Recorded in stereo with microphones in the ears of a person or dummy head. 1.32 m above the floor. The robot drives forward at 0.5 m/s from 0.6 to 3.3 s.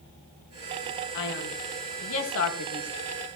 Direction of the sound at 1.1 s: 70° left (ahead or behind).